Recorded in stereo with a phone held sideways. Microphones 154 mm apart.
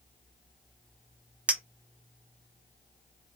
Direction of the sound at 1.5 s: 10° right (ahead or behind).